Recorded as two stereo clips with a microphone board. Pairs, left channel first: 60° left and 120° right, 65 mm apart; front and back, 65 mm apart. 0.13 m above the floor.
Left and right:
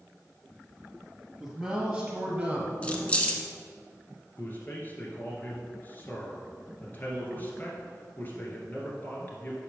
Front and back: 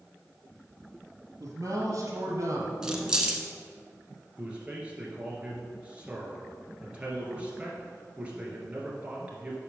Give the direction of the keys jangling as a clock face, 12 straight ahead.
8 o'clock.